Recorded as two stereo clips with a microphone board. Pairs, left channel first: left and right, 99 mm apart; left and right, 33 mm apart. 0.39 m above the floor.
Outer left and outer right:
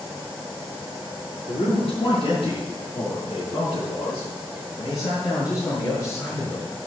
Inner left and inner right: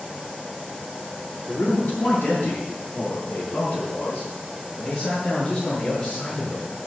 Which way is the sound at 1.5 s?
70° left (ahead or behind).